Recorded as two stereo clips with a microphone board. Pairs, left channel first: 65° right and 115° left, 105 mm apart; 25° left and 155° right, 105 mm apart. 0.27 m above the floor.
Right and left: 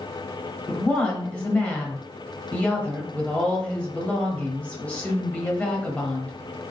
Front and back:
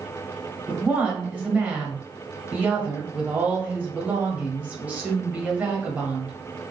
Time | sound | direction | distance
0.7 | a woman speaking | 120° right | 1.2 m